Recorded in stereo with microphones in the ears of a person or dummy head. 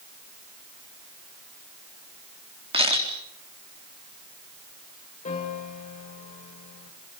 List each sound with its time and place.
2.7 s a camera shutter: 25° right (ahead or behind), 4 m
5.2 s a piano: 40° left (ahead or behind), 3.5 m